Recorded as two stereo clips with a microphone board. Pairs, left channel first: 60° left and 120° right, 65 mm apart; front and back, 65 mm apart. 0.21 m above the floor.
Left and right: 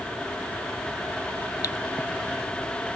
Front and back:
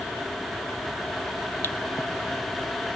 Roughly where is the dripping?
Ahead left.